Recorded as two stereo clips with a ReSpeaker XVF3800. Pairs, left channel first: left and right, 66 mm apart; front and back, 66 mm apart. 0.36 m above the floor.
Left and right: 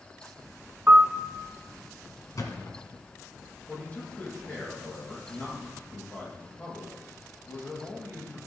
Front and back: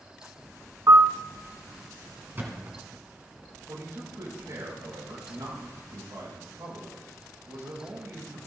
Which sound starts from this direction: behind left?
A thud, at 2.4 s.